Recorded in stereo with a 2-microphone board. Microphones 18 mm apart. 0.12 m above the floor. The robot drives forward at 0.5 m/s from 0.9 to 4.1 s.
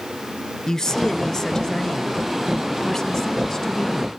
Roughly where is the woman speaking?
Left.